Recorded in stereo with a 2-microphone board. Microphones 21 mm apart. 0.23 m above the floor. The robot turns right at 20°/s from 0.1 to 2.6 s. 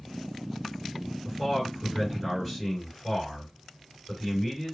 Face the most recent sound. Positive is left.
turn(degrees=-10)  # may be behind; listen again after turning